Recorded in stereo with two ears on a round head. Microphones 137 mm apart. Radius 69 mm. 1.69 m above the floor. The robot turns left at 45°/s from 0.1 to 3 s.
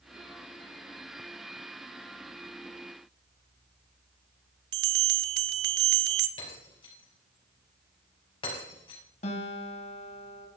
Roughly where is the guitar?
Left.